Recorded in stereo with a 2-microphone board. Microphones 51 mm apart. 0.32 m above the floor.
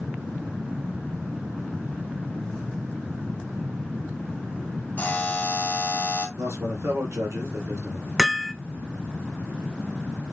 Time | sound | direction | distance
5.0 | a buzzer | 35° left (ahead or behind) | 3 m
6.4 | a man speaking | 70° right (ahead or behind) | 4 m
8.2 | hammering | 5° right (ahead or behind) | 0.8 m